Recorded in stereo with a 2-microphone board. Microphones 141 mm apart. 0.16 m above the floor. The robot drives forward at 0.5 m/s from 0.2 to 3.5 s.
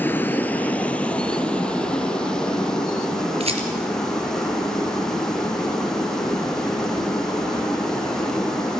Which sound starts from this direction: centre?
Running water, at 0.0 s.